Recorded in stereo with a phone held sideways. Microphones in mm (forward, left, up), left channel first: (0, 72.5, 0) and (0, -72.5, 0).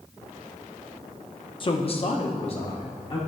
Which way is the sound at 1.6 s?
35° left (ahead or behind).